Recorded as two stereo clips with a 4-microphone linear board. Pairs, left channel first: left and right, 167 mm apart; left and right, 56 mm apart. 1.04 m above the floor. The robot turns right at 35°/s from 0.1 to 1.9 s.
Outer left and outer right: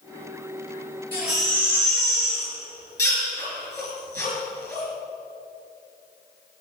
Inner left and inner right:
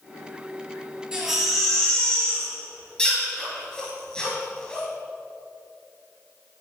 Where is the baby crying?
10° right (ahead or behind), 5 m; by 4.8 s 15° left (ahead or behind), 5 m.